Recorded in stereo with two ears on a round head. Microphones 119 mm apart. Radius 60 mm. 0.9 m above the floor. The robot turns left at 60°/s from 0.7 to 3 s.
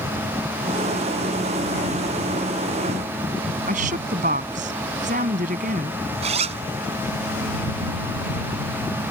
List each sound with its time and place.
3.7 s a woman speaking: 60° right (ahead or behind)
6.2 s a zipper: 50° right (ahead or behind)